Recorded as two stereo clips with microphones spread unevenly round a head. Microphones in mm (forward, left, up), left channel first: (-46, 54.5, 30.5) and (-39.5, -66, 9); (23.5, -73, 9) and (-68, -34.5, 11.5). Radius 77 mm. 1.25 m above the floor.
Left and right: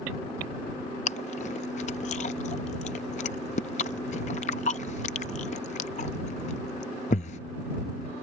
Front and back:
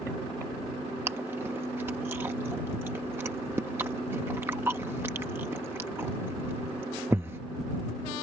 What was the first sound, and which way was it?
Chewing, 85° left.